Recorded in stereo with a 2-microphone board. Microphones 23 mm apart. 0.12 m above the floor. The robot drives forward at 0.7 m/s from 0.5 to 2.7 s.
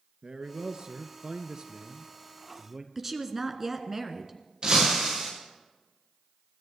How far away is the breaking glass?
About 9 m.